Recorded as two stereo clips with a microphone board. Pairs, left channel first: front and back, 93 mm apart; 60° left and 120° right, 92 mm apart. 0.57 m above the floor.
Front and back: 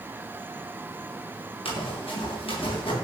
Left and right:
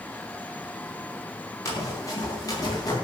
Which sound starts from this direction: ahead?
Running footsteps, at 1.6 s.